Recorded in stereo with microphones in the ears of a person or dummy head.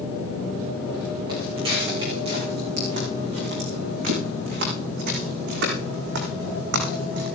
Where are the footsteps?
20° right (ahead or behind), 7.5 m; by 7.3 s 65° right (ahead or behind), 7.5 m.